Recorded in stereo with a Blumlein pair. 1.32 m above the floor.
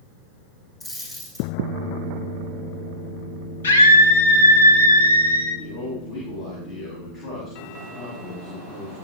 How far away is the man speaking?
About 8.5 m.